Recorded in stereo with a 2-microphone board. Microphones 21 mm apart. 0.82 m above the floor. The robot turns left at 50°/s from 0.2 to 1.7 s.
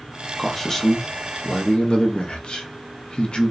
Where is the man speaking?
Straight behind, 0.6 m; by 3.5 s 115° left, 0.6 m.